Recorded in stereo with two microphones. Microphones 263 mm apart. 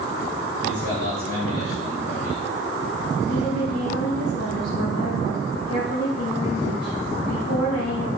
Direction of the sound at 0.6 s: 60° left (ahead or behind).